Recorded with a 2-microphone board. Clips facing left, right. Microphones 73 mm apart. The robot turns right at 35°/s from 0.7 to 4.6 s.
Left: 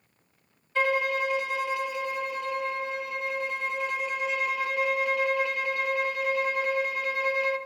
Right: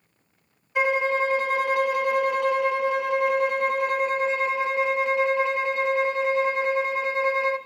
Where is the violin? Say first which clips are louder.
Right 3 dB; 160° right, 0.6 m; by 7.6 s 25° right, 0.6 m.